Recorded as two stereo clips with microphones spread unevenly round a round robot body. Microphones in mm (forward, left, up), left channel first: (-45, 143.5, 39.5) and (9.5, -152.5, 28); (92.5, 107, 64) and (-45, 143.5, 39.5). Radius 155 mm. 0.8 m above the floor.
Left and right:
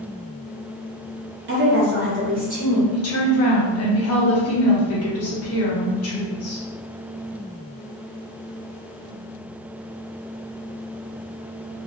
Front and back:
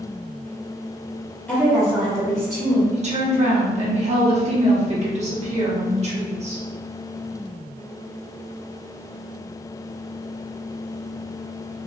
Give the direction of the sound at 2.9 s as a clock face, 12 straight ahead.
7 o'clock.